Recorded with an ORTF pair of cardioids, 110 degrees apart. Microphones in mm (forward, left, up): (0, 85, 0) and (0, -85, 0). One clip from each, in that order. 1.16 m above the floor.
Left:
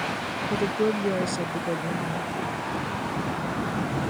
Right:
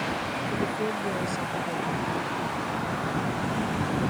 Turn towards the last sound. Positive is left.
turn(degrees=45)